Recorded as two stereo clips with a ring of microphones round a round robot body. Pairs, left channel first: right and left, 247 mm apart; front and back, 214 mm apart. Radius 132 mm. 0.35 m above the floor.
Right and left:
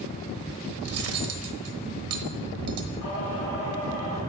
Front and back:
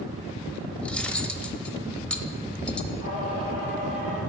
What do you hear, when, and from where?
0.8 s cutlery clinking: 85° left, 1.0 m
3.0 s singing: 110° right, 4 m